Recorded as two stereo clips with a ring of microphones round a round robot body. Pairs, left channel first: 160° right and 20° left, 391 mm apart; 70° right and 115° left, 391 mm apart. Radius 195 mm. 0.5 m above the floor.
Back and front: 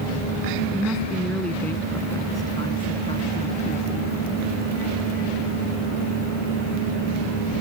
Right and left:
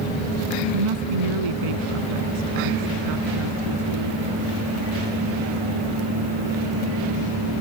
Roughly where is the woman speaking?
Left.